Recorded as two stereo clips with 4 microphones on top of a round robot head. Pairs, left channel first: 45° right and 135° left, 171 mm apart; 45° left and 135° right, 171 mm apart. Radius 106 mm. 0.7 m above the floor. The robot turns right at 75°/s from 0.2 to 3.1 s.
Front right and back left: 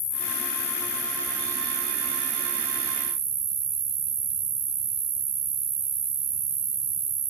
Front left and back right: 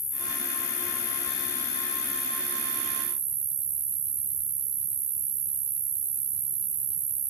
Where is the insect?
25° right, 1.3 m; by 7.3 s 170° right, 1.3 m.